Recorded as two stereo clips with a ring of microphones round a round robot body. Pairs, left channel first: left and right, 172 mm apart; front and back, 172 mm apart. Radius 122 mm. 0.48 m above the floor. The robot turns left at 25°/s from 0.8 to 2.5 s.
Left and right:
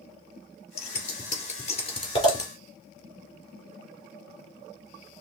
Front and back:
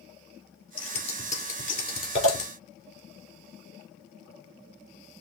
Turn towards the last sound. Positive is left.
turn(degrees=20)